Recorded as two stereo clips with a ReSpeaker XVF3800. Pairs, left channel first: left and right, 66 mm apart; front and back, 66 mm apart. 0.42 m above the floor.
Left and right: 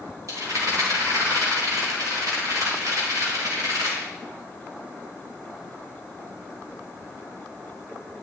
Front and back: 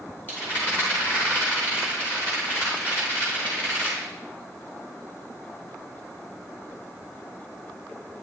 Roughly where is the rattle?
Ahead right.